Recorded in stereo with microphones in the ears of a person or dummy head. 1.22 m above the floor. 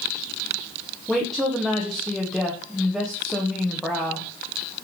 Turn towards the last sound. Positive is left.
turn(degrees=0)  # may be behind; listen again after turning